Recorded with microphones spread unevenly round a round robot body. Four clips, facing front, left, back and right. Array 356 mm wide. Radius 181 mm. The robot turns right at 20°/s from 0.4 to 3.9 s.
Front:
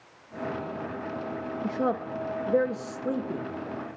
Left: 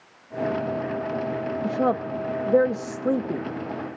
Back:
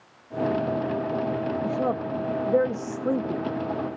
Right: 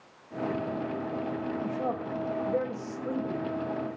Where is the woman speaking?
85° left, 0.9 m; by 3.5 s 120° left, 0.9 m.